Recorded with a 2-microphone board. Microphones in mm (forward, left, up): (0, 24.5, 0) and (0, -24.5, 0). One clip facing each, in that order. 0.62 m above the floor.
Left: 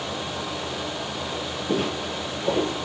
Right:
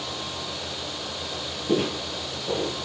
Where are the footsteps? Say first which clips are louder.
Right 1 dB; 10° right (ahead or behind), 0.7 m; by 2.8 s 55° left (ahead or behind), 0.9 m.